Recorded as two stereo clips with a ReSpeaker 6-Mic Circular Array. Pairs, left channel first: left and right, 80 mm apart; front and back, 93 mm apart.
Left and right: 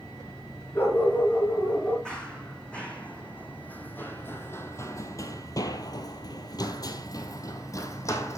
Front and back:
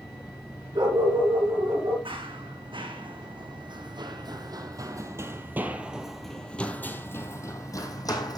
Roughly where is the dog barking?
Behind left.